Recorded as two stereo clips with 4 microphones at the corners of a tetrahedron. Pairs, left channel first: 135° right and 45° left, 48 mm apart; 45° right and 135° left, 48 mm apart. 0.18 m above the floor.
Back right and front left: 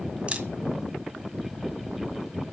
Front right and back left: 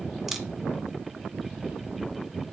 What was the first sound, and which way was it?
A camera shutter, 55° left.